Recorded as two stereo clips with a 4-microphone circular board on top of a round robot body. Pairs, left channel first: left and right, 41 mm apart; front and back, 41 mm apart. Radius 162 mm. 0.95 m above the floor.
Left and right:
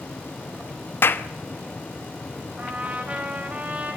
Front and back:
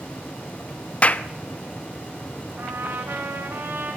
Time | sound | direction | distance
1.0 | a clap | 60° left | 1.1 m
2.6 | a trumpet | 150° right | 5.5 m